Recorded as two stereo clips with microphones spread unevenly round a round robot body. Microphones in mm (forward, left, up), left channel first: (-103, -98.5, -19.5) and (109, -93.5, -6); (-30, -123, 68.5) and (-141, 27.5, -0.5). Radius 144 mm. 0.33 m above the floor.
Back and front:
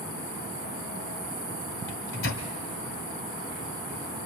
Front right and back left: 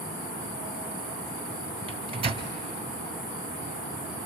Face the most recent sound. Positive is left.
turn(degrees=165)